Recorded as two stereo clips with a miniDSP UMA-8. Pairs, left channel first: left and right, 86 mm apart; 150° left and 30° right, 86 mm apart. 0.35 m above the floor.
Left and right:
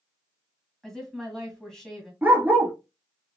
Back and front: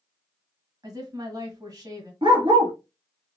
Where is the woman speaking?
5° left, 2.0 m.